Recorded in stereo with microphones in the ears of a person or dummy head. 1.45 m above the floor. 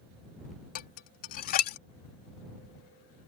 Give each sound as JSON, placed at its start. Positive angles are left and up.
{"t": 0.8, "sound": "dishes clattering", "side_deg": 50}